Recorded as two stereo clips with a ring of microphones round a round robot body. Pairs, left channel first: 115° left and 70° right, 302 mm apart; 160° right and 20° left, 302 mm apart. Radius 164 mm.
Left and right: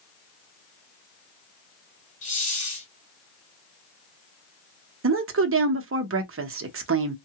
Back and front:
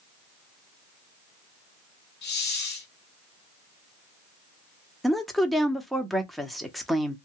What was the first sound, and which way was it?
A hiss, 165° left.